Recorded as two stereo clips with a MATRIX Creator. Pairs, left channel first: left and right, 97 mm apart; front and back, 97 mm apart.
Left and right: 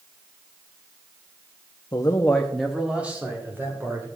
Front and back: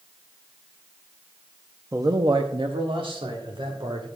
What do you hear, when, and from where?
1.9 s a man speaking: 125° left, 0.7 m; by 4.1 s 155° right, 2.5 m